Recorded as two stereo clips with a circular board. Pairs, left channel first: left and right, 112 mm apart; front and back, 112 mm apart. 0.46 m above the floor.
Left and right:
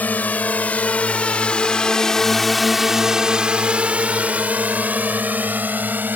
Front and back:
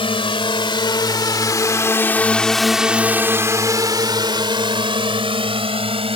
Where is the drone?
20° left; by 6.2 s 160° right.